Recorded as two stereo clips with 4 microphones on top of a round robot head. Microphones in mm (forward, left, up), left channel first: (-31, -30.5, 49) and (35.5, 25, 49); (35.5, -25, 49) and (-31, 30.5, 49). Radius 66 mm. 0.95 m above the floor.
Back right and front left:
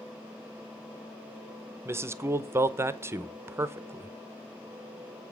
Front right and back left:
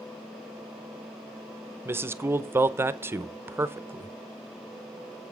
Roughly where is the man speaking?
Left.